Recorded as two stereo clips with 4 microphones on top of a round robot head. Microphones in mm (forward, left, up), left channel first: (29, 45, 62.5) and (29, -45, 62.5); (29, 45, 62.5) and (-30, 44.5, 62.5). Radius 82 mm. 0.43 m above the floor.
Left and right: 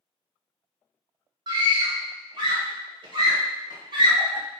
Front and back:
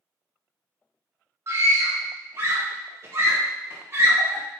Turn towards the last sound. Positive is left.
turn(degrees=-130)